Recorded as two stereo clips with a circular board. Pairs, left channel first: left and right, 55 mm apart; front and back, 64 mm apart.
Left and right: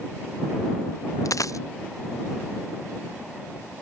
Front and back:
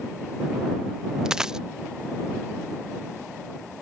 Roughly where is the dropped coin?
Left.